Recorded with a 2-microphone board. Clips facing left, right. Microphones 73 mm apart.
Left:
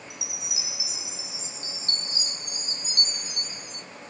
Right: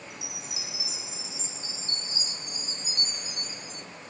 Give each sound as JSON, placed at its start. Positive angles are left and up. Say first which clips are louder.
{"t": 0.1, "sound": "a chime", "louder": "even", "side_deg": 75, "distance_m": 3.0}